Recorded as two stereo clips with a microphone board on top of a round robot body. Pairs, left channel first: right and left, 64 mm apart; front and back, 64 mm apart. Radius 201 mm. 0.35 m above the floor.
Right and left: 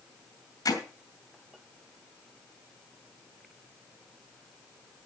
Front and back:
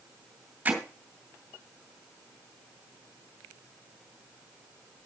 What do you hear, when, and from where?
0.7 s hammering: 115° right, 2.5 m